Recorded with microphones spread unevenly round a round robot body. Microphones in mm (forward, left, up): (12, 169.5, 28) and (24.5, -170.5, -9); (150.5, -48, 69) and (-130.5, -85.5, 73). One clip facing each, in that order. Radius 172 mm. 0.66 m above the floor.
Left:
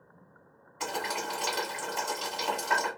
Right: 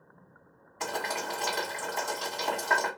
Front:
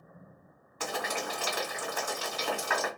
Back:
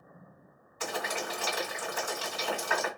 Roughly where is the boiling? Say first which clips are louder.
Even, even; ahead.